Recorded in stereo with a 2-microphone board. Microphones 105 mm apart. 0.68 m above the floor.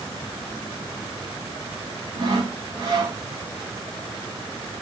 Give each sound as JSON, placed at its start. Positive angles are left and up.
{"t": 2.2, "sound": "sawing", "side_deg": -45, "distance_m": 1.7}